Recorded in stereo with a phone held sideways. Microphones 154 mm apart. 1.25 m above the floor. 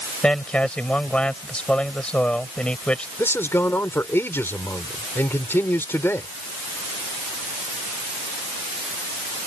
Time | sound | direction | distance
0.2 | a man speaking | 5° left (ahead or behind) | ?
3.2 | a man speaking | 15° left (ahead or behind) | ?